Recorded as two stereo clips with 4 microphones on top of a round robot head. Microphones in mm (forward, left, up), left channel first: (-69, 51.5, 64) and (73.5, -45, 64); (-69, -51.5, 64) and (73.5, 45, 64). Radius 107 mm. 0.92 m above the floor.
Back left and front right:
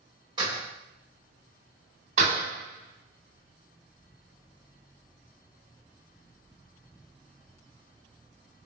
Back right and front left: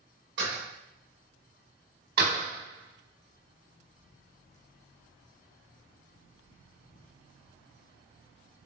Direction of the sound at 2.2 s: 15° left.